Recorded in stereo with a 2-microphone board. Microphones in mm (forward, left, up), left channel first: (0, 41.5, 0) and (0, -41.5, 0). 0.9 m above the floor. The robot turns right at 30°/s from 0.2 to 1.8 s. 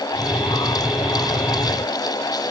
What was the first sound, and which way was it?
Only background noise.